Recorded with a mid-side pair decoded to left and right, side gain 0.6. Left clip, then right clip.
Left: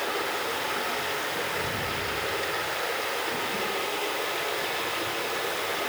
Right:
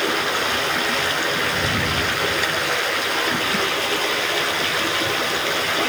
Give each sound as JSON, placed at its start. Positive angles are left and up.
{"t": 0.0, "sound": "running water", "azimuth_deg": -55, "distance_m": 5.5}